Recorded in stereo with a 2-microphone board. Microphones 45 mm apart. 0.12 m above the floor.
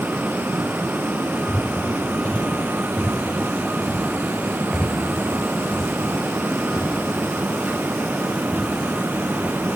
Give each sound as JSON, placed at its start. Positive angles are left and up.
{"t": 1.5, "sound": "footsteps", "side_deg": 35, "distance_m": 3.5}